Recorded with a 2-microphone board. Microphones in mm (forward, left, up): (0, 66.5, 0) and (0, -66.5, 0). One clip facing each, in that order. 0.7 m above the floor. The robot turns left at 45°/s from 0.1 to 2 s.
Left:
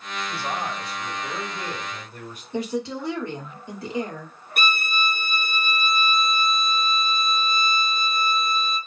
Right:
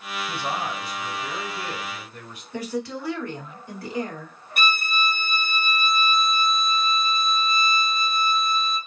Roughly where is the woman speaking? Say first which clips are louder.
Left 2 dB; left.